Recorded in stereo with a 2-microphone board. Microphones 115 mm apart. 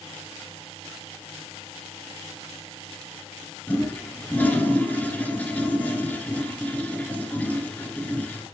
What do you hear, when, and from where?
3.7 s a toilet flushing: 15° left (ahead or behind), 1.6 m